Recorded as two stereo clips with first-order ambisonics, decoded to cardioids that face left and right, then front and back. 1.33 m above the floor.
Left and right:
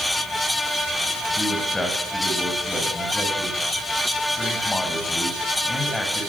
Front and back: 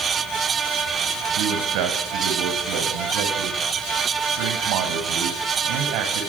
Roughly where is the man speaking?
Behind.